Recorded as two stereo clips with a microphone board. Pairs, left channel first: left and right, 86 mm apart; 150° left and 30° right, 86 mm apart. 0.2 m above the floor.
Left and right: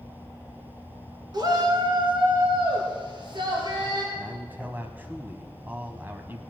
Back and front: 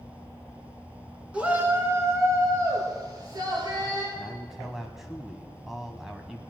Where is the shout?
105° right, 2.5 m; by 4.0 s 60° right, 5.5 m.